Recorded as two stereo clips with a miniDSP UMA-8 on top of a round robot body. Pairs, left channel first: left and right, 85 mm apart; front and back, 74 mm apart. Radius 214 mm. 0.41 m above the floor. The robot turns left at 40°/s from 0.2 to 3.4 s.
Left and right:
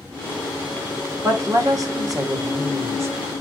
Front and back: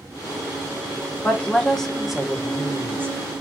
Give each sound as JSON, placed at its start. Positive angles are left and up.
{"t": 1.2, "sound": "a woman speaking", "azimuth_deg": -60, "distance_m": 1.1}